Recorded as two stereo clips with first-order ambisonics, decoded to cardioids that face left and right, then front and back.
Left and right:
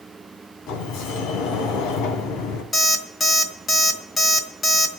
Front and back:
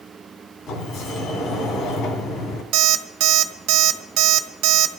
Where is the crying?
No crying in this recording.